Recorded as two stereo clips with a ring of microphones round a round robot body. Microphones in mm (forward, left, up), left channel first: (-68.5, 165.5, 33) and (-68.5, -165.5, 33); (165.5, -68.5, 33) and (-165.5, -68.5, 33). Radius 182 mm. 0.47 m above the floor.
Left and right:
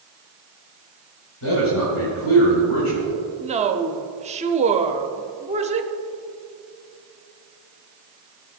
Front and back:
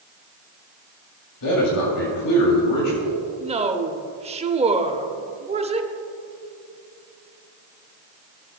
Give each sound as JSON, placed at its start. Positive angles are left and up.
{"t": 1.4, "sound": "a man speaking", "azimuth_deg": 35, "distance_m": 2.0}
{"t": 3.4, "sound": "a woman speaking", "azimuth_deg": -135, "distance_m": 0.9}